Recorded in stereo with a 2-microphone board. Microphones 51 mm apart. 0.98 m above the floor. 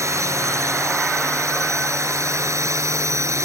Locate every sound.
0.0 s a drone: 85° right